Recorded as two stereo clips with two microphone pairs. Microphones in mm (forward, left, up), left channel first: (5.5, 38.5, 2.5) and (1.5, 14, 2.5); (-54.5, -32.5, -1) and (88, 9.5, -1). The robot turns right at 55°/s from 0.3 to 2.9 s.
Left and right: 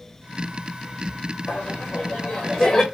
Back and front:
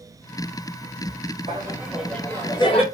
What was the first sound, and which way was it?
Laughter, 75° left.